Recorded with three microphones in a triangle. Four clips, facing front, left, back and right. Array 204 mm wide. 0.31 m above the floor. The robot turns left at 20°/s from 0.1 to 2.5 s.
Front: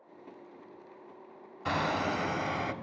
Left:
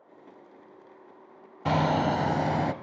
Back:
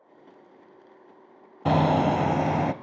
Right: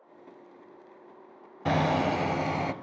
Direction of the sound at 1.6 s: 175° left.